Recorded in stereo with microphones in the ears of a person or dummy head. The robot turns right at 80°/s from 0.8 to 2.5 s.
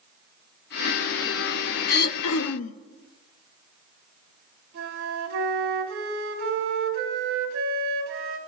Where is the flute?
75° right (ahead or behind), 1.7 m.